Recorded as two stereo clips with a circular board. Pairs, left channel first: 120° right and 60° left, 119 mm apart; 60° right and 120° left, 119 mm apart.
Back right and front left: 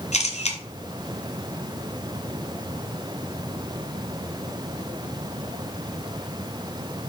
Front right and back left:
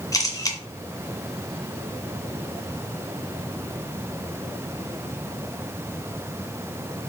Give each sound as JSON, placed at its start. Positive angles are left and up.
{"t": 0.1, "sound": "a camera shutter", "azimuth_deg": -120, "distance_m": 1.7}